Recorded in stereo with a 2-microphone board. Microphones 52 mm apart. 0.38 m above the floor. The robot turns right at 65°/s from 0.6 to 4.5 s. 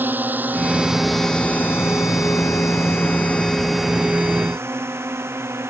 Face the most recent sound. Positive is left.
turn(degrees=-50)  # may be behind; listen again after turning